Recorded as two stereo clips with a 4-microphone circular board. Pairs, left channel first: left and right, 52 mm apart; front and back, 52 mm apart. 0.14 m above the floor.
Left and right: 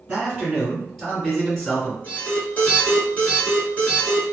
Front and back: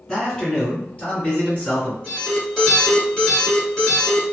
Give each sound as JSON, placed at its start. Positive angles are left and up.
{"t": 0.1, "sound": "a man speaking", "azimuth_deg": -40, "distance_m": 1.7}
{"t": 2.0, "sound": "an alarm", "azimuth_deg": 75, "distance_m": 1.8}